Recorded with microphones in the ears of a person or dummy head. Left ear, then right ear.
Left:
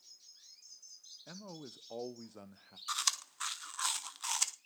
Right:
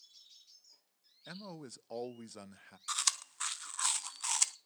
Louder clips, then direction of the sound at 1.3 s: Right 3 dB; 50° right (ahead or behind).